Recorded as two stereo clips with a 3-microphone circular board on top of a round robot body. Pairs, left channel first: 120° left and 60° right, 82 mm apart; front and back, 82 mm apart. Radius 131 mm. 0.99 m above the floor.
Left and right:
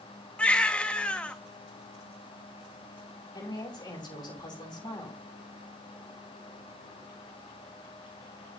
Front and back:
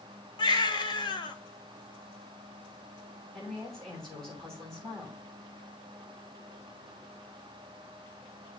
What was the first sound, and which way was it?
A baby crying, 45° left.